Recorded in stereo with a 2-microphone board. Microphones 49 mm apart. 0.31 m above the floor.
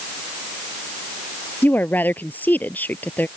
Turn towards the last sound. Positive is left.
turn(degrees=40)  # may be behind; listen again after turning